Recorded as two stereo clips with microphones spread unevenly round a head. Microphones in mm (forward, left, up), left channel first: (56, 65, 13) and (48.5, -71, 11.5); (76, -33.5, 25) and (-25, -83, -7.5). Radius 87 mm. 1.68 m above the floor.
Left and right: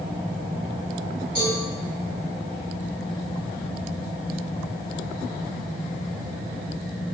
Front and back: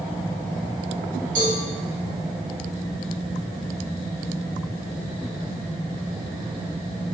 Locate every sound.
1.4 s a cowbell: 155° right, 2.0 m